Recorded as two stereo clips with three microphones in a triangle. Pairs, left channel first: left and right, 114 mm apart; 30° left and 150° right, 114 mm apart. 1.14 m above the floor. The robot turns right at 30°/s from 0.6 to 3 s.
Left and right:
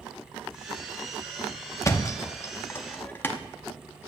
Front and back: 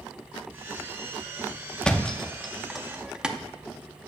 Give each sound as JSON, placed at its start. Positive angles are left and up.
{"t": 1.8, "sound": "a thud", "azimuth_deg": 100, "distance_m": 0.6}